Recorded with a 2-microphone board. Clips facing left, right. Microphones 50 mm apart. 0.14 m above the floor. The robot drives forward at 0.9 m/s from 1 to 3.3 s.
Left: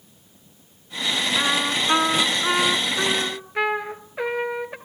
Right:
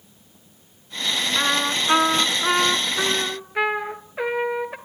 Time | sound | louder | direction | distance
1.4 | a trumpet | right 1 dB | 5° right (ahead or behind) | 1.0 m